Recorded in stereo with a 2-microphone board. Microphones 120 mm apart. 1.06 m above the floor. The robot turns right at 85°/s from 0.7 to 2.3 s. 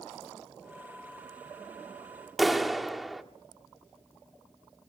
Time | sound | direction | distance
2.4 | a clap | centre (ahead or behind) | 1.6 m